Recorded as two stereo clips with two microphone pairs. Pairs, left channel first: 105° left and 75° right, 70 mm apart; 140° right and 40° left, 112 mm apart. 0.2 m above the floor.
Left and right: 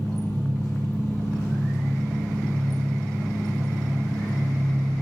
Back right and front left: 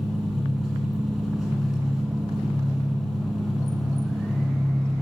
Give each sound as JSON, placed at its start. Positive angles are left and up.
{"t": 0.0, "sound": "an engine running", "azimuth_deg": 125, "distance_m": 2.0}